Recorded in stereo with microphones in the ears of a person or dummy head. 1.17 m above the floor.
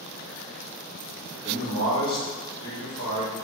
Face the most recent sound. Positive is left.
turn(degrees=25)  # may be behind; listen again after turning